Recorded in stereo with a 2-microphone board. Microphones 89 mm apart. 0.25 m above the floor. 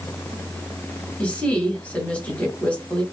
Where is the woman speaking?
15° left (ahead or behind), 1.6 m.